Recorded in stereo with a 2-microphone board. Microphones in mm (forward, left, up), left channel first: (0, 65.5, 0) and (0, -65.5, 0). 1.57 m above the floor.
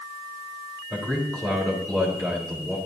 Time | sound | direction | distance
0.9 | a man speaking | 5° left (ahead or behind) | 3.5 m